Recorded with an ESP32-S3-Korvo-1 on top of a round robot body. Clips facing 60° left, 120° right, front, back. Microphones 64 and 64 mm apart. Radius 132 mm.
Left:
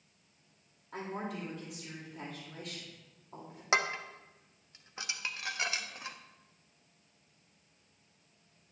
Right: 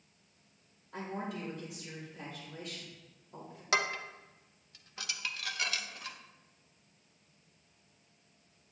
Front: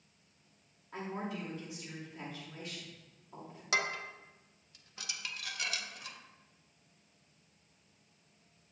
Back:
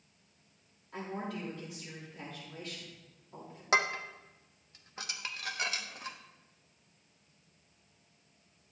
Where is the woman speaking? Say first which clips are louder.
Even, back 1 dB; 70° left, 3 m.